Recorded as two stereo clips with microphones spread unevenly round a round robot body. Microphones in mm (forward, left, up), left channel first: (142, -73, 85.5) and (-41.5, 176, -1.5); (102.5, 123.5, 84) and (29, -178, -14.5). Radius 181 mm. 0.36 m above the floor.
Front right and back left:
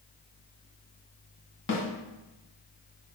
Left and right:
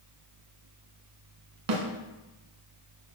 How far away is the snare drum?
About 1.4 m.